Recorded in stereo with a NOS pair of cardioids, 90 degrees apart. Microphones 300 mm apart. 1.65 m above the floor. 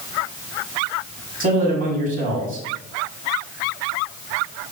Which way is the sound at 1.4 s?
25° right.